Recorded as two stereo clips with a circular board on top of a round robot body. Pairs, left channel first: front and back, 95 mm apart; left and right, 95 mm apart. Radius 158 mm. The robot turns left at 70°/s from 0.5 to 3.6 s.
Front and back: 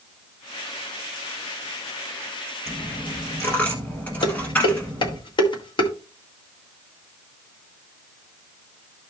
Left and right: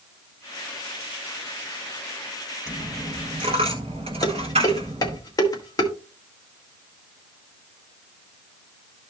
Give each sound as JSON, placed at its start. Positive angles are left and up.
{"t": 2.7, "sound": "a dropped coin", "azimuth_deg": -5, "distance_m": 0.9}
{"t": 4.2, "sound": "dishes clattering", "azimuth_deg": 40, "distance_m": 1.7}